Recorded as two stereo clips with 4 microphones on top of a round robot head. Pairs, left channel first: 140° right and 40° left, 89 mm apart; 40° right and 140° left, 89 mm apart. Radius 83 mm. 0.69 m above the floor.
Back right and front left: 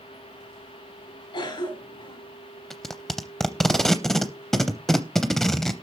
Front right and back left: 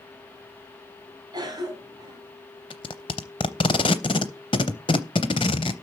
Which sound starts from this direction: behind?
A cough, at 1.3 s.